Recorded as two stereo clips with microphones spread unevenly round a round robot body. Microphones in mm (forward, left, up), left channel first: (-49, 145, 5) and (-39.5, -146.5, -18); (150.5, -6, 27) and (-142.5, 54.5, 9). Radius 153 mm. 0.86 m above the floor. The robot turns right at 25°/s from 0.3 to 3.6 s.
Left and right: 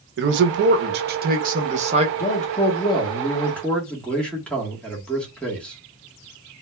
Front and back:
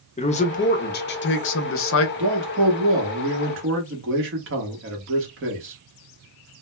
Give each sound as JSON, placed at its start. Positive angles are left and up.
{"t": 0.2, "sound": "a man speaking", "azimuth_deg": -75, "distance_m": 0.5}
{"t": 2.2, "sound": "a man speaking", "azimuth_deg": 145, "distance_m": 1.1}